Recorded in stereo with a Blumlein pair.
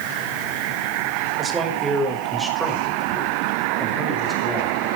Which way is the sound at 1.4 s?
15° right.